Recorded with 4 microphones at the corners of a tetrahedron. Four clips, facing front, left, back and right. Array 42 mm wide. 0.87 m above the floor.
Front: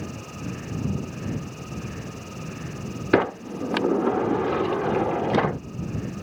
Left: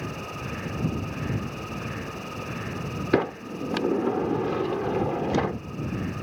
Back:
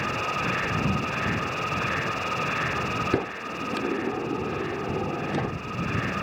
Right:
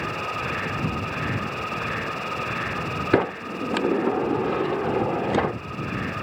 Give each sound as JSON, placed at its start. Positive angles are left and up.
{"t": 0.0, "sound": "an insect", "azimuth_deg": -140}
{"t": 3.1, "sound": "a sliding door", "azimuth_deg": -20}